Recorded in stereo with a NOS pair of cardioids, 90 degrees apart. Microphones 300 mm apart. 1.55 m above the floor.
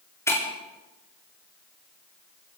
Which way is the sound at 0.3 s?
10° left.